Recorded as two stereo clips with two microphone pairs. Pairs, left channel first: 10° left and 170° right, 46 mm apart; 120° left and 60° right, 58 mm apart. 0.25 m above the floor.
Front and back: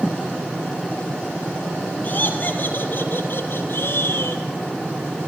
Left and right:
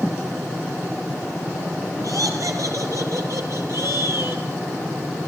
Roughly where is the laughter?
Ahead right.